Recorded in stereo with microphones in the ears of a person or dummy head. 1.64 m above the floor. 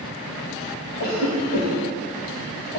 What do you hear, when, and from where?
1.0 s a cough: 80° left, 1.4 m